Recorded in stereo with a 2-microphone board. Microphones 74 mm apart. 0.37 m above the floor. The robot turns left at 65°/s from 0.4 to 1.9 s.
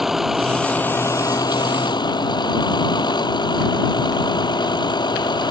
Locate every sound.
0.0 s a vehicle: 175° right; by 5.5 s 85° left